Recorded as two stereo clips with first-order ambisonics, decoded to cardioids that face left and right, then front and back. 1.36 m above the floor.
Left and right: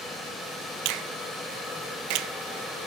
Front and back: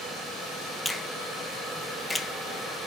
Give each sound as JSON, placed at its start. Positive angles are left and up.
{"t": 0.8, "sound": "a finger snap", "azimuth_deg": -80, "distance_m": 0.6}